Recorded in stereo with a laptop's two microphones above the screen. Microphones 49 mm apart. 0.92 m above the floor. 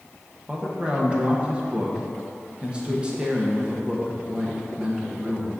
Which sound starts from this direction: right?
A man speaking, at 0.5 s.